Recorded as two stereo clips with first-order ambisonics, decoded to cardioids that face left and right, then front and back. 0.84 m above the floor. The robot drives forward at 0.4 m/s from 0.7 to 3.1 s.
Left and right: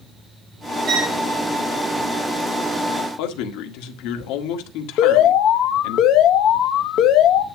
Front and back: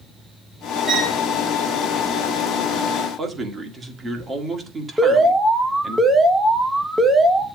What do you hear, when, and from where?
0.9 s a violin: 75° right, 2.5 m
3.2 s a man speaking: 105° left, 1.8 m
5.0 s an alarm: 95° left, 1.0 m